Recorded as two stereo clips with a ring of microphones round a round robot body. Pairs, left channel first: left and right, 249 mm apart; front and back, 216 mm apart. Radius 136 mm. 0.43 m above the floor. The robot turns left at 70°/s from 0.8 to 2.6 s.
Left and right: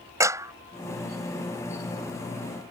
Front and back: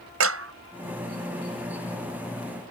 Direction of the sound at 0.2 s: 170° right.